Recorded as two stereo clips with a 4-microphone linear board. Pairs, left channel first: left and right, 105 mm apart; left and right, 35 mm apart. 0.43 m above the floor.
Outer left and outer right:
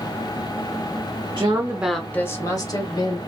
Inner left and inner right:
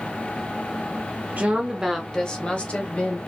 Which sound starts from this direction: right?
A woman speaking, at 1.4 s.